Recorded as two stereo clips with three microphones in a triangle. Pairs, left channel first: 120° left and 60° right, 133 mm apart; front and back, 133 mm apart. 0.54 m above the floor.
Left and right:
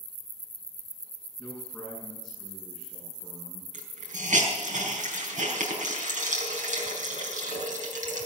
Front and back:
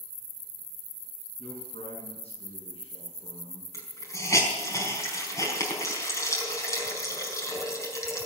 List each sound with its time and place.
1.4 s a man speaking: 35° left, 7 m
3.7 s a hiss: 65° right, 4.5 m